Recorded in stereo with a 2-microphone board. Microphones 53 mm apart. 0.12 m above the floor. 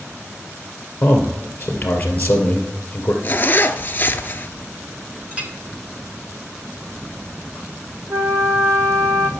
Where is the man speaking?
25° left (ahead or behind), 2 m.